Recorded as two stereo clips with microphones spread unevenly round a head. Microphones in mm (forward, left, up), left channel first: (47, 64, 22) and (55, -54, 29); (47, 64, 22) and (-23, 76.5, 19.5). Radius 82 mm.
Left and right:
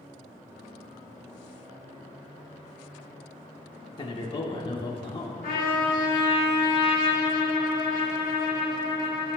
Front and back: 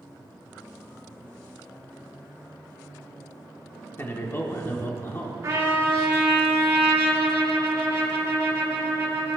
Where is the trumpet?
130° left, 1.8 m.